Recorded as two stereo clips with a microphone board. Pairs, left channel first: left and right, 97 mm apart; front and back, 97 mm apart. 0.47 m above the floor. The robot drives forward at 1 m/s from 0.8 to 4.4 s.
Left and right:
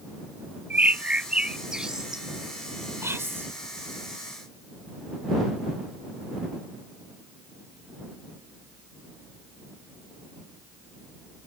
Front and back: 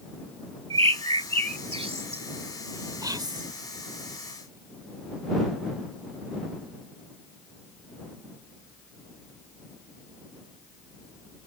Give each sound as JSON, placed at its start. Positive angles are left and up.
{"t": 0.7, "sound": "a bird", "azimuth_deg": -160}
{"t": 3.0, "sound": "whispering", "azimuth_deg": -145}